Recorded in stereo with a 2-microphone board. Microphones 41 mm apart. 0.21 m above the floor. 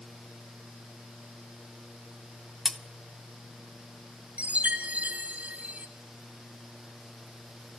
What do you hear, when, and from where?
2.6 s cutlery clinking: centre (ahead or behind), 0.7 m
4.4 s a chime: 40° right (ahead or behind), 1.8 m